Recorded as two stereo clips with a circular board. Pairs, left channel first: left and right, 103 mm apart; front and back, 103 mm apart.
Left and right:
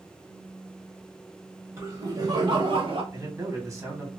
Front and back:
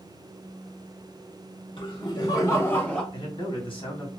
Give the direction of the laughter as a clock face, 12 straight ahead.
1 o'clock.